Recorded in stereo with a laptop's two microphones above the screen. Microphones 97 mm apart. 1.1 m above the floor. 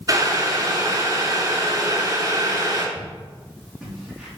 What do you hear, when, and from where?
0.1 s boiling: 40° right (ahead or behind), 4 m
3.0 s footsteps: 5° right (ahead or behind), 3.5 m; by 4.4 s 15° right (ahead or behind), 4.5 m